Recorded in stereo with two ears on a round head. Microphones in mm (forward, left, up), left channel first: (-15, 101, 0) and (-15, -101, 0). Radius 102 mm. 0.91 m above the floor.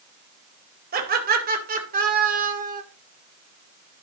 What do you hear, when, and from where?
0.9 s laughter: 40° right (ahead or behind), 3.5 m; by 2.8 s 35° right (ahead or behind), 2 m